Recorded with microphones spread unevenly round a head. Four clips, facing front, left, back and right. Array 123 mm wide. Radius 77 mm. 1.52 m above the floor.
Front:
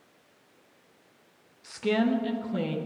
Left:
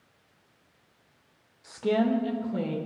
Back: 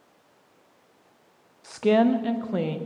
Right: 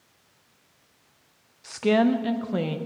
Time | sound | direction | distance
1.6 | a woman speaking | 175° right | 0.7 m